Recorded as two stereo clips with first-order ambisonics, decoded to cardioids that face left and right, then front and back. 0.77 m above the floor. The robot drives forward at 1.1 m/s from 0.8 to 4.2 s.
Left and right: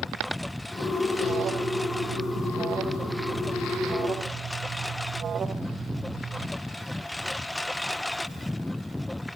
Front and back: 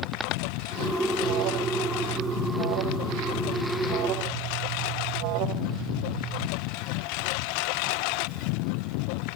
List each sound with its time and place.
0.0 s a lawn mower: 5° left
1.2 s an alarm: 150° right; by 6.5 s 155° right